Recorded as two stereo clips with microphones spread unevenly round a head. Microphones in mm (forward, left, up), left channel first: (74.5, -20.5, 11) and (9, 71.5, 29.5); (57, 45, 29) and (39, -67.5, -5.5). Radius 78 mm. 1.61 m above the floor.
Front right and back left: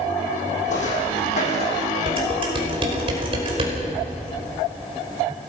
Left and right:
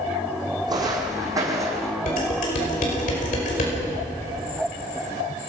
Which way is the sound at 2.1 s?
90° left.